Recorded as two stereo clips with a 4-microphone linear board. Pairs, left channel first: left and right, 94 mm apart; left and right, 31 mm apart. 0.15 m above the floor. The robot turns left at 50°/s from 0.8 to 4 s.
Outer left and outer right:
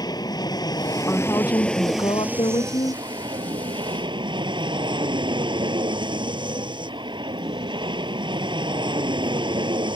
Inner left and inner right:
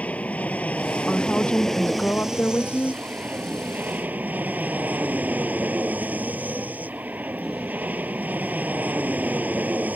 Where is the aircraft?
55° left; by 10.0 s 105° right.